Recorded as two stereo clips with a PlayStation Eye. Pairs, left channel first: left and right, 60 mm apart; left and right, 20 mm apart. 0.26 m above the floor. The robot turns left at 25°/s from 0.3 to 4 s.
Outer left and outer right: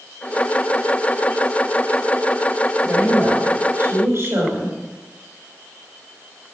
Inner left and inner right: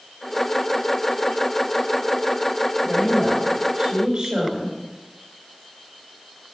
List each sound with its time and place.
2.8 s a woman speaking: 20° right (ahead or behind), 4.5 m; by 4.7 s 45° right (ahead or behind), 4.5 m